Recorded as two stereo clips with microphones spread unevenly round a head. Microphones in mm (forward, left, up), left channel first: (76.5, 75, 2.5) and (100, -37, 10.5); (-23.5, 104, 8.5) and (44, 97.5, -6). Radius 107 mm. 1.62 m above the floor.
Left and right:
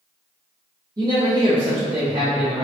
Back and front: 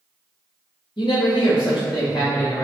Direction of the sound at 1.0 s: 150° right.